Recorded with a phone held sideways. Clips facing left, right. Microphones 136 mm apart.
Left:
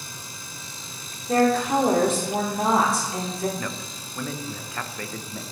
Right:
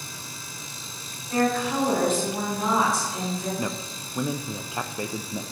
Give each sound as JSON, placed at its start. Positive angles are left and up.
{"t": 1.3, "sound": "a woman speaking", "side_deg": 80, "distance_m": 3.0}
{"t": 3.6, "sound": "a man speaking", "side_deg": -20, "distance_m": 0.6}